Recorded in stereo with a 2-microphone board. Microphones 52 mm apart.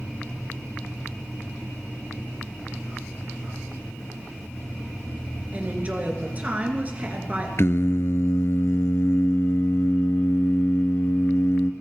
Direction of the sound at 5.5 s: 30° right (ahead or behind).